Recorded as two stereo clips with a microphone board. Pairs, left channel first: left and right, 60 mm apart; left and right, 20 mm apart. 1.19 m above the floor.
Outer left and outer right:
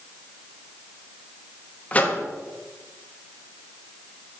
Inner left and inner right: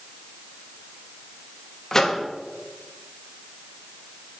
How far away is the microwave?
About 1.0 m.